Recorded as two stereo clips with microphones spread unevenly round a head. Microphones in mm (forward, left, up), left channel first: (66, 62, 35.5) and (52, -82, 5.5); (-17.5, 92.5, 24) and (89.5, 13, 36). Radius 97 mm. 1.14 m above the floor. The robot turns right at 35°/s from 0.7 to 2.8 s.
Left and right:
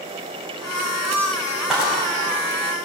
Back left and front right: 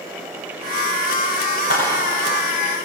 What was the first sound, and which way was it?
A clap, 175° left.